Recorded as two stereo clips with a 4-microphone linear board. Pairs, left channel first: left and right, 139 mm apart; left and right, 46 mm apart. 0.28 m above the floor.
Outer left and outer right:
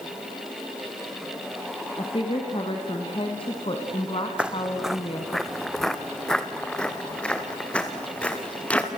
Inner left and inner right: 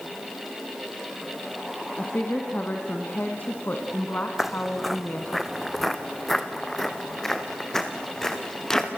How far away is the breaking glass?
No breaking glass in this recording.